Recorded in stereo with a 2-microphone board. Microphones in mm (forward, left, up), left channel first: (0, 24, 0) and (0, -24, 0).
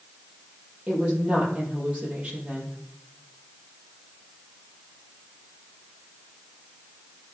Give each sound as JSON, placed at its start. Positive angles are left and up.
{"t": 0.9, "sound": "a woman speaking", "side_deg": -25, "distance_m": 5.0}